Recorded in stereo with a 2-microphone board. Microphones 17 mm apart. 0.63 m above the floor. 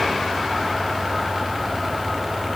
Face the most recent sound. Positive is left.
No sound to turn to.